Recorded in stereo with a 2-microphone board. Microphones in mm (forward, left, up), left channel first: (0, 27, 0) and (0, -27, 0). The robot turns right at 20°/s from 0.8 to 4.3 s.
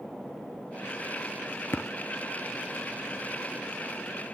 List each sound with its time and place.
1.7 s tapping: 50° left (ahead or behind), 1.6 m; by 1.9 s 55° left (ahead or behind), 1.6 m